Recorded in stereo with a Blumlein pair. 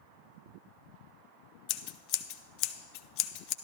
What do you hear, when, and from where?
1.7 s scissors: 45° left, 0.7 m